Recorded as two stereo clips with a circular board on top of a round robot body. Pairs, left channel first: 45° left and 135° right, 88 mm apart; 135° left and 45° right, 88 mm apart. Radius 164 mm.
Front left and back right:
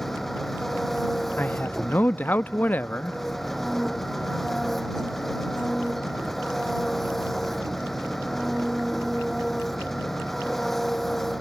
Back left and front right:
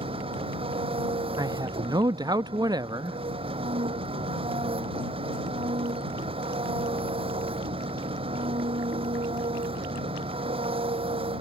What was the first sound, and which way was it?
An engine running, 45° right.